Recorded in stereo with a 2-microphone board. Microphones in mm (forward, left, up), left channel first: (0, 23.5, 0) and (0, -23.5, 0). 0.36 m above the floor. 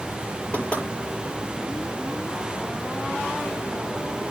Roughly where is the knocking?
Left.